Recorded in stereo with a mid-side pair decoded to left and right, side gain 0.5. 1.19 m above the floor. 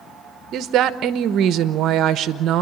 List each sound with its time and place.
0.5 s a woman speaking: 65° right, 0.9 m